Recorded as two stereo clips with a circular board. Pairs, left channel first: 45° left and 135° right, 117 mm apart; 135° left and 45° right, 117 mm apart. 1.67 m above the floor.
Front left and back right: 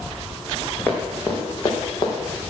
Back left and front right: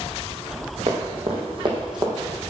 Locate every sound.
0.9 s running footsteps: 30° right, 4 m; by 2.1 s 5° left, 3 m